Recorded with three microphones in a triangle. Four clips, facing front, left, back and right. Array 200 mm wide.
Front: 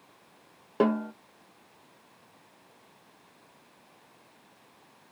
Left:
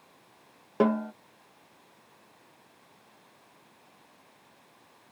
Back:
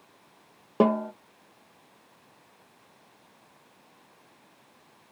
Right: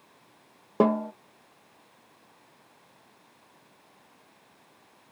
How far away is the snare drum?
About 0.7 m.